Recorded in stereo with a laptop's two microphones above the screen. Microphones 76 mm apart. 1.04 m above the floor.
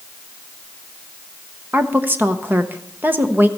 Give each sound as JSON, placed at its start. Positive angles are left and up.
{"t": 1.7, "sound": "a woman speaking", "side_deg": -25, "distance_m": 0.7}